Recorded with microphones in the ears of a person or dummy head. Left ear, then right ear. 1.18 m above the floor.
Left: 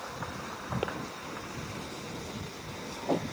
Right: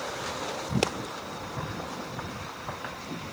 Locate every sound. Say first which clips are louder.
0.8 s a pop: right 6 dB; 85° right